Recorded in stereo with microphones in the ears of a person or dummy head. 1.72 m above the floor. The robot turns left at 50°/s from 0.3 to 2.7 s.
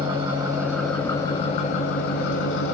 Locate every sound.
0.0 s an engine running: 155° right, 1.2 m; by 2.8 s 85° left, 1.2 m